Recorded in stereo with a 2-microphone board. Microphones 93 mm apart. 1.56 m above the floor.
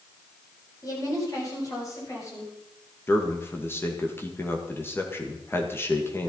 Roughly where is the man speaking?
Left.